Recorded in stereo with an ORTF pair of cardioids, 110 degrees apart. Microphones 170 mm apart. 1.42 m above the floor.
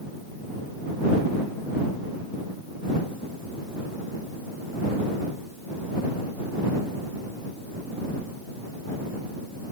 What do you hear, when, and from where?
Only background noise.